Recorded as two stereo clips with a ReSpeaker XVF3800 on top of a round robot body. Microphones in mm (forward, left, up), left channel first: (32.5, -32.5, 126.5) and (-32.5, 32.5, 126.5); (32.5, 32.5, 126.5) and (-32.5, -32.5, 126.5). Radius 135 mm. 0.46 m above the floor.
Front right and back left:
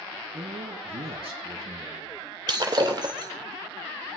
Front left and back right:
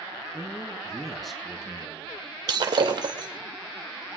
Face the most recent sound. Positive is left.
turn(degrees=180)